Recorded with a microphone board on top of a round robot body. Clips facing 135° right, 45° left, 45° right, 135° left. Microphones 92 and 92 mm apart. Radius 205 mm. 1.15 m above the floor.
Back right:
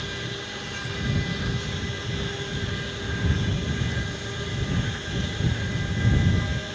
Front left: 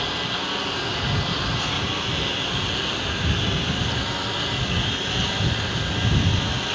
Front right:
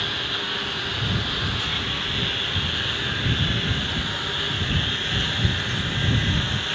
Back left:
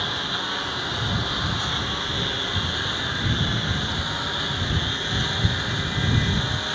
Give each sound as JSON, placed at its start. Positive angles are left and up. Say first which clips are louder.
{"t": 0.0, "sound": "a lawn mower", "louder": "front left 6 dB, back left 1 dB", "azimuth_deg": 65}